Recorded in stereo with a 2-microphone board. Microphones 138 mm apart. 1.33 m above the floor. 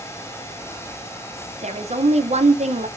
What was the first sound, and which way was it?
A woman speaking, 55° right (ahead or behind).